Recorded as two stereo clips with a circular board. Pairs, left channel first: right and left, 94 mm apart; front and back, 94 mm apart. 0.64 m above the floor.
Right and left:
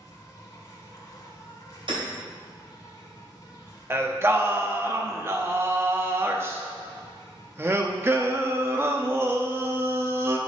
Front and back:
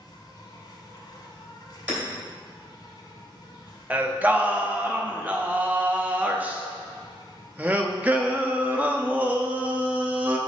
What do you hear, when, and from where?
0.0 s an insect: 40° right, 1.2 m
1.9 s hammering: 105° left, 3 m
3.9 s singing: 125° left, 0.6 m